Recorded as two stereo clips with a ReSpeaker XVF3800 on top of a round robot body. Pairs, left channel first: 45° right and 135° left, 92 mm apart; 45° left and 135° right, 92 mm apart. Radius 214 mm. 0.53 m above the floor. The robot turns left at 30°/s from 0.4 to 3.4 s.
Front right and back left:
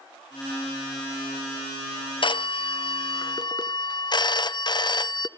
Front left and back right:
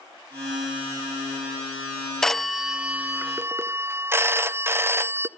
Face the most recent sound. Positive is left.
turn(degrees=-75)